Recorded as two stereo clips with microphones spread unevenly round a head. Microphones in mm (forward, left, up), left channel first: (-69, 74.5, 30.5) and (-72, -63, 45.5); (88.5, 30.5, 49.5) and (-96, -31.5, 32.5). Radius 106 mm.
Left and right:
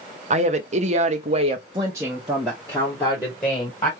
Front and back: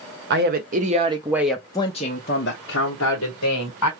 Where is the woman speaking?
120° right, 0.8 m; by 3.9 s 20° left, 1.3 m.